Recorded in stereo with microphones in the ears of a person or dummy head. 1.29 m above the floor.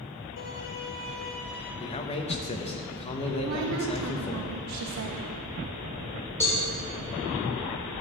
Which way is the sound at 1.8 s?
30° left (ahead or behind).